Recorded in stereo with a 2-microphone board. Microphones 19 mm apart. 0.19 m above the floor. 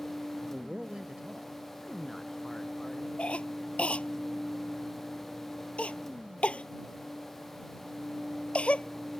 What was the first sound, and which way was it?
A man speaking, 30° right (ahead or behind).